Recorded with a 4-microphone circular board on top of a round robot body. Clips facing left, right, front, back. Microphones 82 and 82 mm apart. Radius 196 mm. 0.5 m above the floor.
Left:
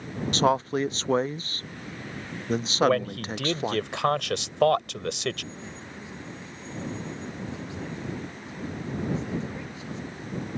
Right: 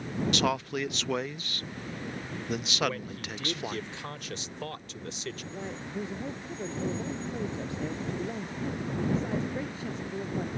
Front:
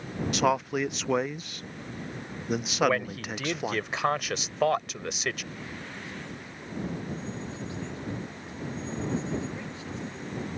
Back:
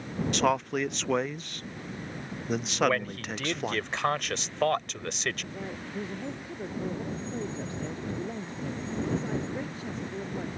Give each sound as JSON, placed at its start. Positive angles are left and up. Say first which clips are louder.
{"t": 0.3, "sound": "a man speaking", "louder": "left 9 dB, front 1 dB", "azimuth_deg": 80}
{"t": 2.8, "sound": "a man speaking", "louder": "left 12 dB, front 1 dB", "azimuth_deg": 85}
{"t": 5.5, "sound": "a man speaking", "louder": "right 5 dB, back 4 dB", "azimuth_deg": -135}